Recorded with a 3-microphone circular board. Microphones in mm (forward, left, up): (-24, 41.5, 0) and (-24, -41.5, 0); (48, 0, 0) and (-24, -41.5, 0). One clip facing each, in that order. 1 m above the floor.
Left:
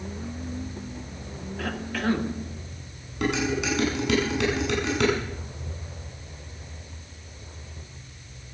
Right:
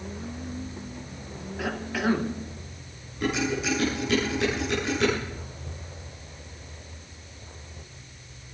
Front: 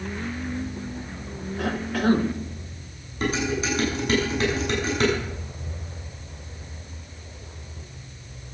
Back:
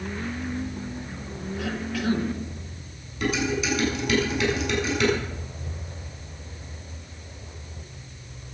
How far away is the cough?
About 1.4 m.